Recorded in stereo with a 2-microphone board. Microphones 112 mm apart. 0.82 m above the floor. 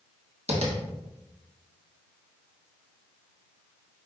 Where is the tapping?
65° right (ahead or behind), 1.0 m.